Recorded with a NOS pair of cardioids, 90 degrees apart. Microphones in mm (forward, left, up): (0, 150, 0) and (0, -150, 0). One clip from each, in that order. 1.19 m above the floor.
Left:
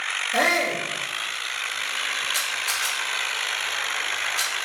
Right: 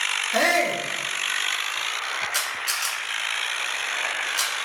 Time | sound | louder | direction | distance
0.3 | a shout | even | 30° right | 2.0 m
2.3 | a camera shutter | left 1 dB | 25° right | 1.6 m